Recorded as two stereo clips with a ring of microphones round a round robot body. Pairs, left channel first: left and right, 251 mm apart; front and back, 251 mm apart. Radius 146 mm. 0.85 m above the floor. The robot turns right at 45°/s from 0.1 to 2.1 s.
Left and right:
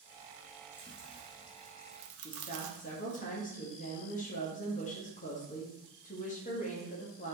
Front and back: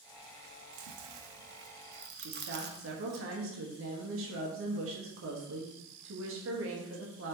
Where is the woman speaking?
150° left, 1.3 m.